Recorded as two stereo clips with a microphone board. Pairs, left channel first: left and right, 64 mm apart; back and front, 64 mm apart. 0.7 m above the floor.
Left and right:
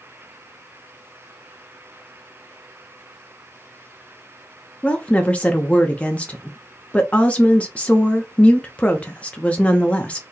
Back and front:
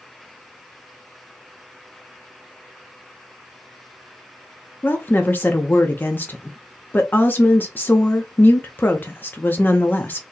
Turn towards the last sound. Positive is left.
turn(degrees=145)